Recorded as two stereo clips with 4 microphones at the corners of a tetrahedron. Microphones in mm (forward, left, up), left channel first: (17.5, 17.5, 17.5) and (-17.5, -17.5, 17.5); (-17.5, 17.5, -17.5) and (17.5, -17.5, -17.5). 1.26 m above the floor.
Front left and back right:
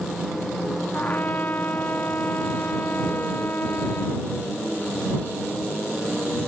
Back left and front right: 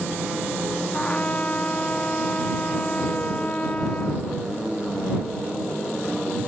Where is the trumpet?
80° left.